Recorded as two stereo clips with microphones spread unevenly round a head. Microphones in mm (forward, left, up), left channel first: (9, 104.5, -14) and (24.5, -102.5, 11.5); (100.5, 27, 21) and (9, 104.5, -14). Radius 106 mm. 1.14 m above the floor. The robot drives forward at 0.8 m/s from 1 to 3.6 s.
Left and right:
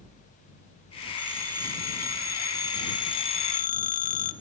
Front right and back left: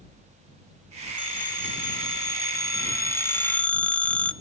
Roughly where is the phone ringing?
Ahead.